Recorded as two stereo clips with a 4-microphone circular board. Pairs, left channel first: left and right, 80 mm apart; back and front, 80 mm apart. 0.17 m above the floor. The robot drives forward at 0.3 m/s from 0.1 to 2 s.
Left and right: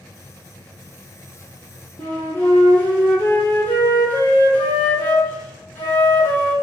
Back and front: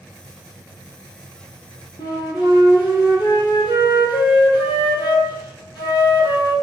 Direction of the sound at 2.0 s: 155° left.